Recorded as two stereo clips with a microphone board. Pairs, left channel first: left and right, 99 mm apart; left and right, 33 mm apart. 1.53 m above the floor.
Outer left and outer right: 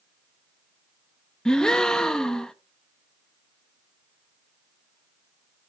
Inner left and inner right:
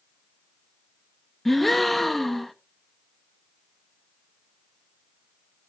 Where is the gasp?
5° left (ahead or behind), 0.9 m.